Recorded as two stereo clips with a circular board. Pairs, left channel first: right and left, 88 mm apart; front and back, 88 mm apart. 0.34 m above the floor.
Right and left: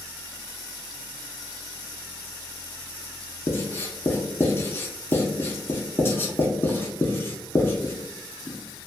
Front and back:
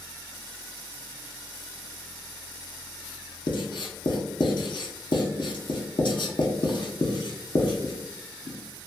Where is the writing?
25° right, 0.5 m.